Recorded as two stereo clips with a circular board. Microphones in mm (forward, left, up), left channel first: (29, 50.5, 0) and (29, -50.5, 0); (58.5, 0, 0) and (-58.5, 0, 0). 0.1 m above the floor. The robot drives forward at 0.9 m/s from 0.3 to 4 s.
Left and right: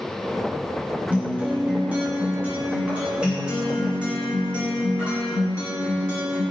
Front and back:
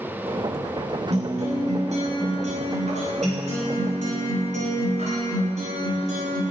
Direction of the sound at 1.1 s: 165° right.